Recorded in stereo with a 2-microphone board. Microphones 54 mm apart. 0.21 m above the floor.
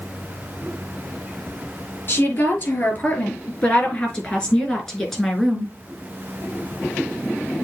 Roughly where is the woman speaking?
Left.